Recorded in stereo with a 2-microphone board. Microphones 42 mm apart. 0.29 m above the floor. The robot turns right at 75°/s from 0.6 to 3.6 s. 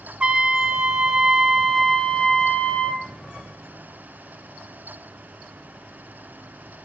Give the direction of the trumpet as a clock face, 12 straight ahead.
2 o'clock.